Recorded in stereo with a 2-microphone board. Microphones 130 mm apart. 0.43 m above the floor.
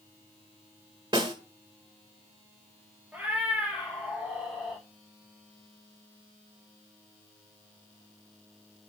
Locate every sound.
1.1 s a snare drum: 40° right (ahead or behind), 1.3 m
3.1 s a cat meowing: 10° right (ahead or behind), 4 m